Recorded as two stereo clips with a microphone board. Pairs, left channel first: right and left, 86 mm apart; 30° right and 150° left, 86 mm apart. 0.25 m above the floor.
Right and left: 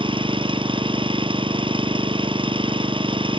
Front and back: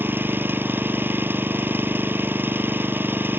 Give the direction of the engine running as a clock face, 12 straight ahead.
9 o'clock.